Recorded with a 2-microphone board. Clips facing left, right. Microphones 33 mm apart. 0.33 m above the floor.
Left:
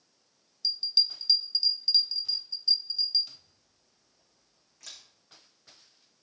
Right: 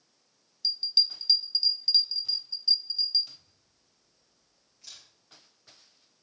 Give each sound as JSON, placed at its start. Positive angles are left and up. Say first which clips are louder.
{"t": 0.6, "sound": "a bell", "louder": "right 1 dB", "side_deg": -10, "distance_m": 1.0}
{"t": 3.3, "sound": "a camera shutter", "louder": "even", "side_deg": 90, "distance_m": 5.5}